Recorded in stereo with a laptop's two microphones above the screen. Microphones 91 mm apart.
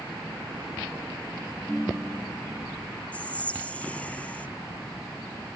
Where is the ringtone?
5° right (ahead or behind), 4.5 m.